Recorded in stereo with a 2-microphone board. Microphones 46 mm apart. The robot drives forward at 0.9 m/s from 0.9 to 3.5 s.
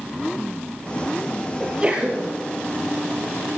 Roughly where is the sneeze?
Right.